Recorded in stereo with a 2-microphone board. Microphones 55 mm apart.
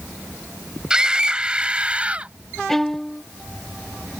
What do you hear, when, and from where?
0.9 s a scream: 15° right (ahead or behind); by 2.3 s 20° right (ahead or behind)
2.7 s a violin: 5° left (ahead or behind)